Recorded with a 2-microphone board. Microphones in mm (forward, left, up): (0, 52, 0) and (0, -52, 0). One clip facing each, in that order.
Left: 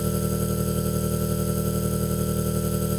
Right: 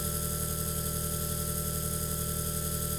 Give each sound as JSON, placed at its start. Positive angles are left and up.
{"t": 0.0, "sound": "an engine running", "side_deg": 55, "distance_m": 2.5}